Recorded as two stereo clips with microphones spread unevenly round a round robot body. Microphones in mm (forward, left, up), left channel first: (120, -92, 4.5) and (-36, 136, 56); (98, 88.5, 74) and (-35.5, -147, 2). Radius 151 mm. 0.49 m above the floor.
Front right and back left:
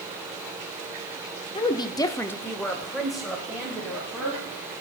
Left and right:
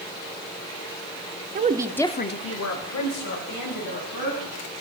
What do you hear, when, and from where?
1.6 s a woman speaking: 110° right, 1.1 m; by 4.6 s 35° left, 4 m